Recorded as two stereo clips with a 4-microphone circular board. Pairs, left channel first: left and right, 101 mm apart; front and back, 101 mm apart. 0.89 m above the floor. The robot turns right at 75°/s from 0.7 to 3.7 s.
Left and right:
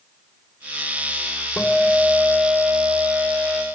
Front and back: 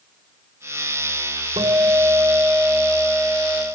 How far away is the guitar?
About 2.0 m.